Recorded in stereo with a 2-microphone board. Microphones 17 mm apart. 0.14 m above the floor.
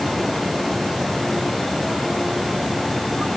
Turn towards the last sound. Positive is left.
No sound to turn to.